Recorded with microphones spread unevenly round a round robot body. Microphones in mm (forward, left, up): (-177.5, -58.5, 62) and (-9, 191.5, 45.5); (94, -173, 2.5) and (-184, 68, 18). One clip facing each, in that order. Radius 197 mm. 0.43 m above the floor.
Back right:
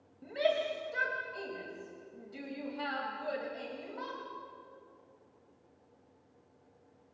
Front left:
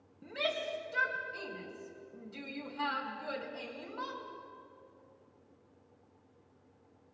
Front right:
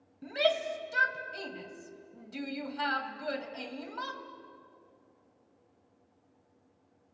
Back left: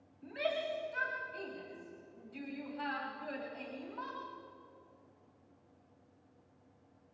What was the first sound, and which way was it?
A shout, 20° right.